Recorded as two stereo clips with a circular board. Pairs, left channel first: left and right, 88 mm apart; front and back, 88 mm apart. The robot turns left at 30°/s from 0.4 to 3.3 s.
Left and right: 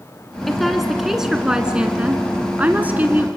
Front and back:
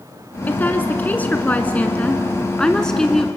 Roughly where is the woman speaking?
Ahead.